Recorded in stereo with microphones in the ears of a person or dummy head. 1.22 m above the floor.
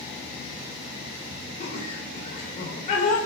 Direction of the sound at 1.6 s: 45° left (ahead or behind).